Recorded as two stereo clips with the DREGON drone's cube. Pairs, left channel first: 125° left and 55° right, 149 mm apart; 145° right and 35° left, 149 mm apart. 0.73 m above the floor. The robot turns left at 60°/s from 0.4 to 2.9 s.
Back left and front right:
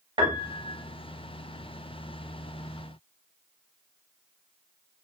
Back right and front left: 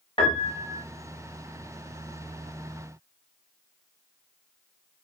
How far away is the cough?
I don't hear a cough.